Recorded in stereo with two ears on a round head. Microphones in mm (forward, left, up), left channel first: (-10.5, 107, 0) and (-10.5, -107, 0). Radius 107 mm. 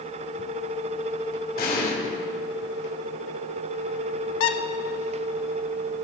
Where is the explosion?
40° left (ahead or behind), 3 m.